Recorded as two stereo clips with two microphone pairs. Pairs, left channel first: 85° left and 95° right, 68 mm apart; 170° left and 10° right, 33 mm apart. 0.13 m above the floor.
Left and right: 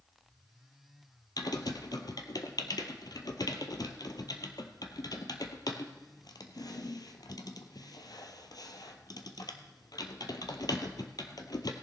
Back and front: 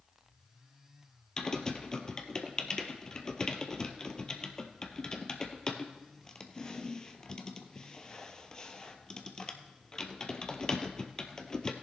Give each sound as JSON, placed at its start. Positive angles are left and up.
{"t": 1.4, "sound": "typing on a keyboard", "azimuth_deg": 95, "distance_m": 0.9}